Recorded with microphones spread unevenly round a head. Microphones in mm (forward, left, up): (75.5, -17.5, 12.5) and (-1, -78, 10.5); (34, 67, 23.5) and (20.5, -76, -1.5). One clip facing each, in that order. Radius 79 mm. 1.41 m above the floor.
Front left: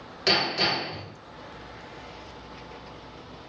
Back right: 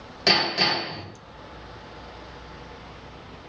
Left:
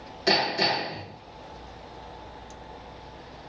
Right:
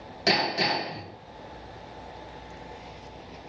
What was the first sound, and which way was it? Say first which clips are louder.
Hammering: back right 2 dB, left 1 dB; 105° right.